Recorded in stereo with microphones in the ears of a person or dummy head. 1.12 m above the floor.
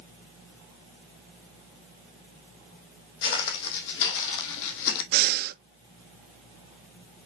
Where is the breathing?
55° right (ahead or behind), 0.9 m.